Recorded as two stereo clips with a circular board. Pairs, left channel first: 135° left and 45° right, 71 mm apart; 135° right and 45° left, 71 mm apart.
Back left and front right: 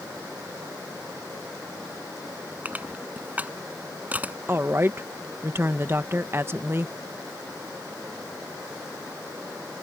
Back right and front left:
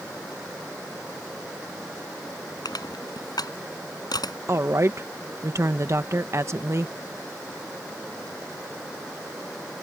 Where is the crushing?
115° right.